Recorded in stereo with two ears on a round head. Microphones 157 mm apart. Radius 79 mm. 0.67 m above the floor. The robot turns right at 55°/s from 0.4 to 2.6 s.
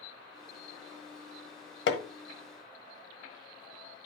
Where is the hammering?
70° left (ahead or behind), 1.3 m; by 2.0 s 60° left (ahead or behind), 1.3 m.